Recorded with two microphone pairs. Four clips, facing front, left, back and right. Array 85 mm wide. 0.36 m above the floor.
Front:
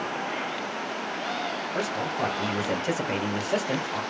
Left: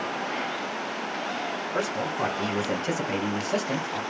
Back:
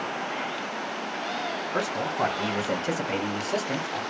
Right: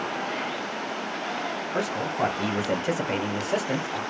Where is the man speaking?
170° right, 1.2 m; by 4.0 s 20° right, 1.4 m.